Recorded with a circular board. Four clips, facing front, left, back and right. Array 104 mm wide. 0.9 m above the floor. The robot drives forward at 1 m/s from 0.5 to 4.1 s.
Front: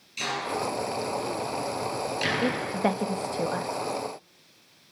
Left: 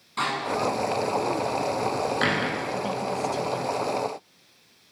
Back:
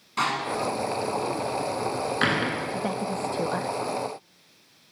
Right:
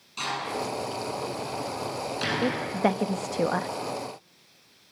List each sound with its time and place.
0.2 s a door slam: 150° left, 8.5 m; by 2.7 s 155° left, 10.5 m
2.4 s a woman speaking: 50° right, 1.6 m; by 3.7 s 110° right, 1.3 m